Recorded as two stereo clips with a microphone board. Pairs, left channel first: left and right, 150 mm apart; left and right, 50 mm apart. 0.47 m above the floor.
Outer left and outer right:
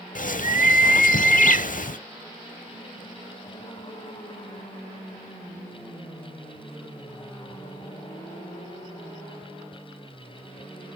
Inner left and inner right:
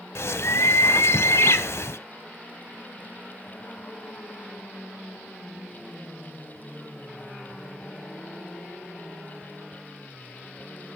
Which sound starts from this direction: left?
A bird, at 0.1 s.